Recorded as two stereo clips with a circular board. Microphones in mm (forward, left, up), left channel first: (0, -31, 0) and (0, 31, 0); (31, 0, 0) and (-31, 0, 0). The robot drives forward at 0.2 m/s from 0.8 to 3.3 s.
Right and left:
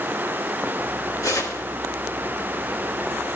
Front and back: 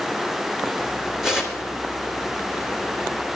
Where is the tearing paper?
100° right, 2.5 m.